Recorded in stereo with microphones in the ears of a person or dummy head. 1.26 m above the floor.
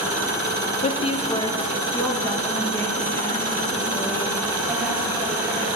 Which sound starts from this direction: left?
A woman speaking, at 0.8 s.